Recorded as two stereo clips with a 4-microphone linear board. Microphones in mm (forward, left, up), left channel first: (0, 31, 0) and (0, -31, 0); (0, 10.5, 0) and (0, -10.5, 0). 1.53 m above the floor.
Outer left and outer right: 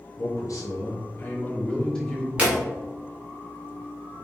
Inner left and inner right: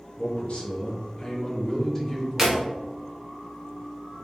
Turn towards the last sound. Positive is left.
turn(degrees=-20)  # may be behind; listen again after turning